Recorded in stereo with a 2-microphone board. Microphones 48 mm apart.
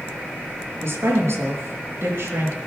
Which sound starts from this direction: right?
A woman speaking, at 0.8 s.